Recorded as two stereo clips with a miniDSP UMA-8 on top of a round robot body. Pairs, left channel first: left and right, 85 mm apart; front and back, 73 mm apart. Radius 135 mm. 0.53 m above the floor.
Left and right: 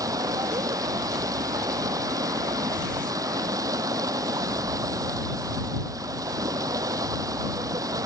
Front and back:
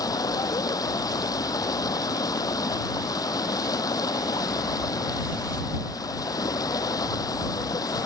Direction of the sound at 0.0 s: 40° right.